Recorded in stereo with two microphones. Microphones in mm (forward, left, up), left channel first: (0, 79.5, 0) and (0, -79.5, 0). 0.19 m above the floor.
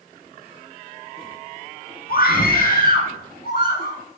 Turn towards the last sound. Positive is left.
turn(degrees=65)  # may be behind; listen again after turning